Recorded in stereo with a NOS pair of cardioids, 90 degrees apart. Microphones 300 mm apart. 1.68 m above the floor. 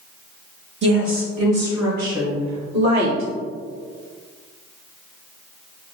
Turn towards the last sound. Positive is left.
turn(degrees=-65)